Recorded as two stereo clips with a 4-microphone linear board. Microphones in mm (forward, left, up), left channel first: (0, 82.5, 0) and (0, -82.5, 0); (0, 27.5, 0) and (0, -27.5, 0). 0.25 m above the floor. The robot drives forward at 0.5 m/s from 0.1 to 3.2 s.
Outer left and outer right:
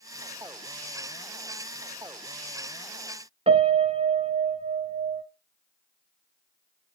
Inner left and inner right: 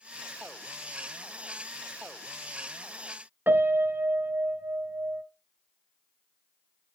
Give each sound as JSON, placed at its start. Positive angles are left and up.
{"t": 3.5, "sound": "a piano", "side_deg": -40, "distance_m": 0.6}